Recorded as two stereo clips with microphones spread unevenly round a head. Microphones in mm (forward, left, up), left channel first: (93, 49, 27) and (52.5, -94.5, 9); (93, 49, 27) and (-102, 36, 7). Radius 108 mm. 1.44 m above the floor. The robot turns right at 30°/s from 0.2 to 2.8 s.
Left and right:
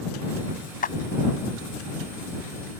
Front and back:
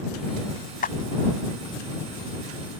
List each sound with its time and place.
0.8 s a clap: 50° left